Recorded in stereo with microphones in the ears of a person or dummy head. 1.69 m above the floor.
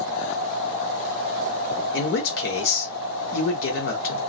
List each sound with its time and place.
1.9 s a man speaking: 75° left (ahead or behind), 1.1 m